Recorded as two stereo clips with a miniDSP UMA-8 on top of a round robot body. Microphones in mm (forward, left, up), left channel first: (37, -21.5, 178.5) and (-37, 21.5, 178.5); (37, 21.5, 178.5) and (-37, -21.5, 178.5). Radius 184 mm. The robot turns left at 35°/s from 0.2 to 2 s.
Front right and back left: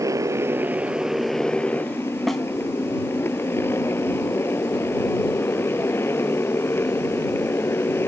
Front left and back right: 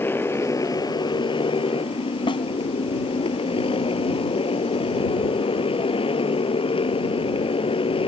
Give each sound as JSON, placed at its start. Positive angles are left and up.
{"t": 0.0, "sound": "a motorcycle", "azimuth_deg": 95}
{"t": 2.3, "sound": "a snare drum", "azimuth_deg": 60}